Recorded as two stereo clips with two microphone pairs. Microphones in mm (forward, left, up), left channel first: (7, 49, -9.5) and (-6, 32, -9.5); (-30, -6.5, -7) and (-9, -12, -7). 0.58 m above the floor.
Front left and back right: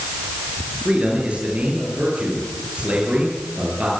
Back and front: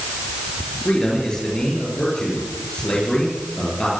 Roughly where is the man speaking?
Behind right.